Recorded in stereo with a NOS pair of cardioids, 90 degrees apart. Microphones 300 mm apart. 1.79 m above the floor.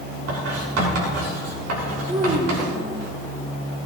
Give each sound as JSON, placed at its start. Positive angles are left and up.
{"t": 0.3, "sound": "writing", "azimuth_deg": -60, "distance_m": 6.5}
{"t": 2.1, "sound": "a child speaking", "azimuth_deg": -20, "distance_m": 3.0}